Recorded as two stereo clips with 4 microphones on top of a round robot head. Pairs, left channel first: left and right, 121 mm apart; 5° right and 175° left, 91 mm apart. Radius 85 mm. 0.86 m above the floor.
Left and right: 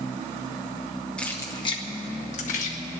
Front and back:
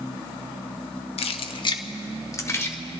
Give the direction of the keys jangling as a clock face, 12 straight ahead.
12 o'clock.